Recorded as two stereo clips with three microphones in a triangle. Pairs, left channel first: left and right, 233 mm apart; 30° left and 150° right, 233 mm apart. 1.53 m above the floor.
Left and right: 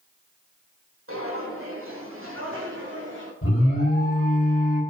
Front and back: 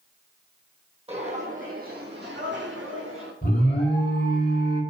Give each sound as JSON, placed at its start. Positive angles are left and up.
{"t": 1.1, "sound": "footsteps", "azimuth_deg": -90, "distance_m": 4.0}
{"t": 3.4, "sound": "an alarm", "azimuth_deg": 75, "distance_m": 6.0}